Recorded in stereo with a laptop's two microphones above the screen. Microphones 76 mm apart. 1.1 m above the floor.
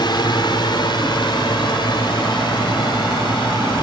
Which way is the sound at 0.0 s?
70° left (ahead or behind).